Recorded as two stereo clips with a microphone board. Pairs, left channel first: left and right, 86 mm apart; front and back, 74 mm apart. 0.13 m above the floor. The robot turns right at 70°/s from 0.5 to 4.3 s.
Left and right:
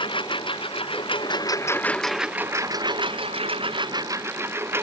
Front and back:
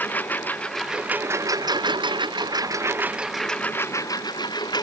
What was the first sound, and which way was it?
A lawn mower, 65° left.